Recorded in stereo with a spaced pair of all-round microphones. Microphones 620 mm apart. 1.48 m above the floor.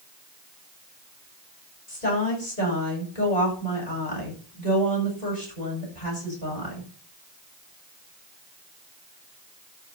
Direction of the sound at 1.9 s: 85° left.